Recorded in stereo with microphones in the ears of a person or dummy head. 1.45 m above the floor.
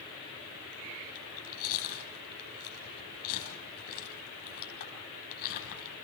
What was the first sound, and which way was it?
Chewing, 55° left (ahead or behind).